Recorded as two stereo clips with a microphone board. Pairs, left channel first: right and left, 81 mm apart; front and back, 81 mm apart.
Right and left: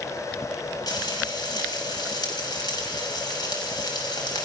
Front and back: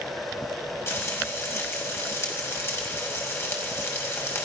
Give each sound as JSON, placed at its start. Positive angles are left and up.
{"t": 0.9, "sound": "frying", "azimuth_deg": -60, "distance_m": 6.0}